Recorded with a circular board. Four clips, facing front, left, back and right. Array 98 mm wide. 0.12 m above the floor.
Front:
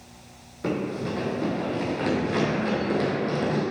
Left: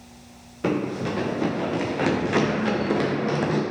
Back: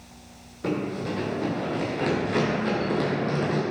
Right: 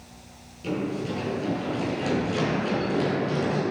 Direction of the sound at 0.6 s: 85° left.